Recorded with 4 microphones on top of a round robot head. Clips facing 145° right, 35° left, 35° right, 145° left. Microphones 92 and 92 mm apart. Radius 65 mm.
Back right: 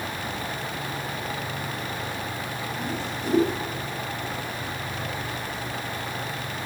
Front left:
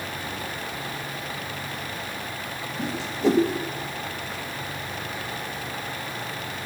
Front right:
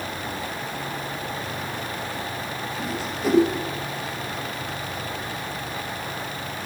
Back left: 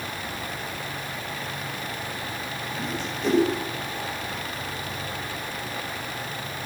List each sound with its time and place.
2.8 s a whoosh: 50° left, 4 m